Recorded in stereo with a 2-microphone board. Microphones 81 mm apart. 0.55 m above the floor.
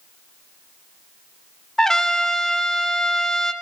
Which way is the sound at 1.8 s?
5° left (ahead or behind).